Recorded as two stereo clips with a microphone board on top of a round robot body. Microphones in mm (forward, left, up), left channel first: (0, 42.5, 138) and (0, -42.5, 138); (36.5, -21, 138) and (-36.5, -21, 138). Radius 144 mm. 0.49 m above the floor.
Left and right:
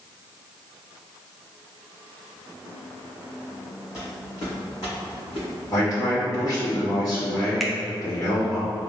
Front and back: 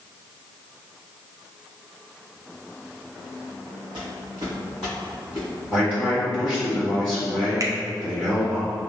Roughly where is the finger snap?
Behind.